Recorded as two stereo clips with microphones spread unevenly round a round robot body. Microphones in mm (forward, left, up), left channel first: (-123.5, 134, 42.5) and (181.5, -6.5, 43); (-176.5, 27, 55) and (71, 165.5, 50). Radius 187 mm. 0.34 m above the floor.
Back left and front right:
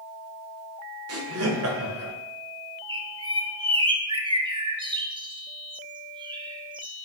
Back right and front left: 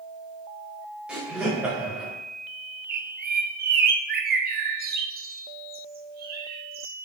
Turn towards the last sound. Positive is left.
turn(degrees=40)